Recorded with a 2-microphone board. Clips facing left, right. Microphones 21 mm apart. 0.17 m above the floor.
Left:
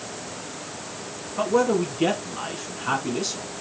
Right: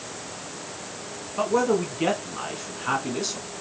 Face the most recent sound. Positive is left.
turn(degrees=-5)  # may be behind; listen again after turning